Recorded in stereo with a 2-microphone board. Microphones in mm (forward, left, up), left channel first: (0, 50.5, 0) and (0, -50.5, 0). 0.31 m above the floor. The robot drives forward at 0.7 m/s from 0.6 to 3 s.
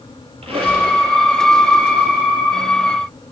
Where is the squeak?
80° right, 2 m; by 0.9 s 75° right (ahead or behind), 2 m.